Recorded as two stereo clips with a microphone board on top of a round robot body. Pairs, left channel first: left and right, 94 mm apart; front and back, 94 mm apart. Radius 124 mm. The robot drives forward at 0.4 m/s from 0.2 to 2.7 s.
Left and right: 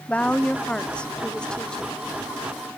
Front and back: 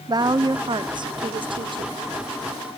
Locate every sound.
0.1 s a woman speaking: 165° left; by 2.0 s 170° left